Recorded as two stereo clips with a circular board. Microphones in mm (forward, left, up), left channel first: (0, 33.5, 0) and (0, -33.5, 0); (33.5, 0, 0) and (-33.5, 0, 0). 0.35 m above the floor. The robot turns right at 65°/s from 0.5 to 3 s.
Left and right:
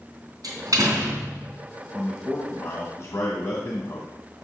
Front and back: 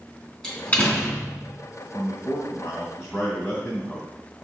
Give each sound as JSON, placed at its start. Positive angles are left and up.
{"t": 0.4, "sound": "a door slam", "azimuth_deg": -80, "distance_m": 3.0}
{"t": 1.9, "sound": "a man speaking", "azimuth_deg": 10, "distance_m": 2.5}